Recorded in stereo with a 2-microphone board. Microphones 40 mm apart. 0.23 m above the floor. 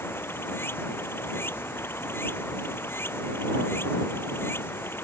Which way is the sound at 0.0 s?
75° left (ahead or behind).